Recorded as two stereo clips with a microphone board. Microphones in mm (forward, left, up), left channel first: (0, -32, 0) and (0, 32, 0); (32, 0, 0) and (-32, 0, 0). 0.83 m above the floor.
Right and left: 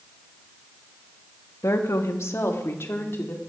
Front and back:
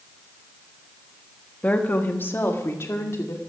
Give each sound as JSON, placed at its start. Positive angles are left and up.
{"t": 1.6, "sound": "a woman speaking", "azimuth_deg": -60, "distance_m": 1.4}